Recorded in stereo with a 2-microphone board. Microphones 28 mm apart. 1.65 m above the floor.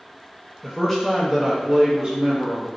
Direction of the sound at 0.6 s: 10° left (ahead or behind).